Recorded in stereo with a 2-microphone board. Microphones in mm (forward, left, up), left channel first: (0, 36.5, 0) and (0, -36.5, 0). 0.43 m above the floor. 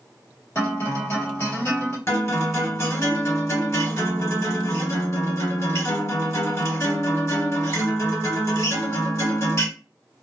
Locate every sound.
0.6 s a guitar: 35° left (ahead or behind), 1.4 m
2.1 s a guitar: 35° left (ahead or behind), 1.6 m